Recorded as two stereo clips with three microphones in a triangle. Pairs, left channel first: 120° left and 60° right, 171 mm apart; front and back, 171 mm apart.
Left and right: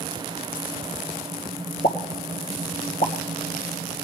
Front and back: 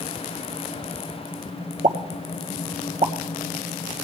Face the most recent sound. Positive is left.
turn(degrees=145)